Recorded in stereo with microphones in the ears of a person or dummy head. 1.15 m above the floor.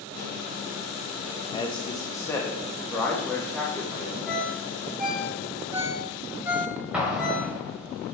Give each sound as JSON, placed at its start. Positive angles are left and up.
{"t": 1.5, "sound": "a man speaking", "side_deg": 25, "distance_m": 1.0}
{"t": 4.3, "sound": "a ringtone", "side_deg": -10, "distance_m": 1.8}
{"t": 6.9, "sound": "an explosion", "side_deg": -5, "distance_m": 1.8}